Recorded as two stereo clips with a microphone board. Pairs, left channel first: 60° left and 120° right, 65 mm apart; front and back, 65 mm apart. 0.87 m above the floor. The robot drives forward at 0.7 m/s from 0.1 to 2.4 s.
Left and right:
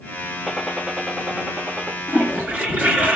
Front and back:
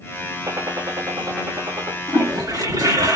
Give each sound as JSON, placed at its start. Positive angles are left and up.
{"t": 0.5, "sound": "a gunshot", "azimuth_deg": 145, "distance_m": 0.7}
{"t": 2.1, "sound": "a toilet flushing", "azimuth_deg": 175, "distance_m": 2.5}